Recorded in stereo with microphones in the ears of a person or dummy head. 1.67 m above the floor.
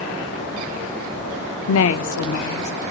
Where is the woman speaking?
70° left (ahead or behind), 0.6 m.